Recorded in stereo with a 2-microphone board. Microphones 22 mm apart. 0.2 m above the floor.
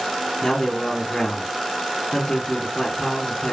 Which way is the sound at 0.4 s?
30° left (ahead or behind).